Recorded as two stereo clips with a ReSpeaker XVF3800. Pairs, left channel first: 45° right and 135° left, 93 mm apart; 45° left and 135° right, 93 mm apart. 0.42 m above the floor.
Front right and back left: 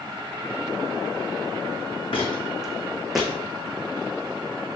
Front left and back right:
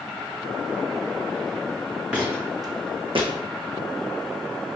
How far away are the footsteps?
About 1.3 m.